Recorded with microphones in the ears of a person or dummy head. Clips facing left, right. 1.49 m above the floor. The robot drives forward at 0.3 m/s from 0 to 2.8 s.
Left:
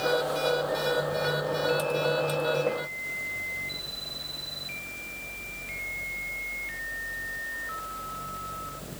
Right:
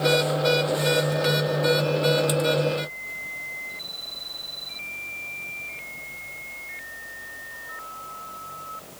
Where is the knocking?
I don't hear knocking.